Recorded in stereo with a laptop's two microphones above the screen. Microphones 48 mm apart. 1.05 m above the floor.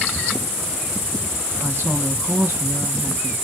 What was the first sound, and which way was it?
A woman speaking, 50° right (ahead or behind).